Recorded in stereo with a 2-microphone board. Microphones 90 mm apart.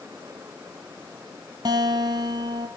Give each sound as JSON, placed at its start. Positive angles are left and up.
{"t": 1.6, "sound": "a guitar", "side_deg": -50, "distance_m": 2.5}